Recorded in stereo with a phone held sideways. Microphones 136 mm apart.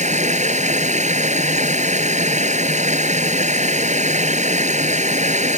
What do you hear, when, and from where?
0.0 s running water: 60° right (ahead or behind)